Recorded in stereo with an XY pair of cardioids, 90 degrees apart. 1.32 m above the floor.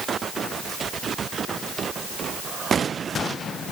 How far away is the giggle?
No giggle in this recording.